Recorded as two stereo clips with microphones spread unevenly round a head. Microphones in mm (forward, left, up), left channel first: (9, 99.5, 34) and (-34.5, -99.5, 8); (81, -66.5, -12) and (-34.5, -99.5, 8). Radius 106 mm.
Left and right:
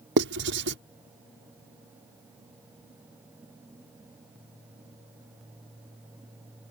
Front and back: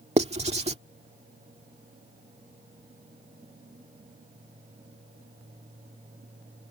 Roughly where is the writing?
Behind right.